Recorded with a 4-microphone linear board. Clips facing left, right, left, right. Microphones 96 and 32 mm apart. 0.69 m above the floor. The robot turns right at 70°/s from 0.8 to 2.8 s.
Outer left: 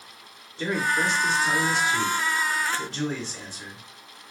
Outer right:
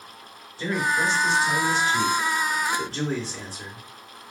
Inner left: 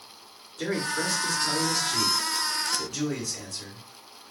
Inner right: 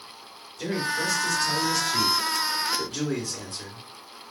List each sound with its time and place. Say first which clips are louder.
0.6 s a man speaking: outer right 1 dB, inner right 1 dB; 90° left, 2.5 m; by 4.3 s 130° right, 2.5 m